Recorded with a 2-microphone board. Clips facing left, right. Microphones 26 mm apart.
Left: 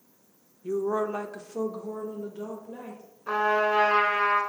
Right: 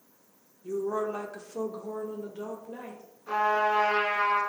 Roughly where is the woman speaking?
Left.